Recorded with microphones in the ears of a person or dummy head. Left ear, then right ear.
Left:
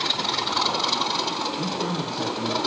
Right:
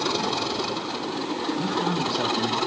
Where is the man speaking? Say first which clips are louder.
Right 2 dB; 65° right (ahead or behind), 1.6 m.